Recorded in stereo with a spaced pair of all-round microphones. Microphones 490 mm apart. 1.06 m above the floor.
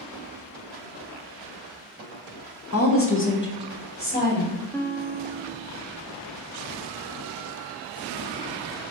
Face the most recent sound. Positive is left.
turn(degrees=5)  # may be behind; listen again after turning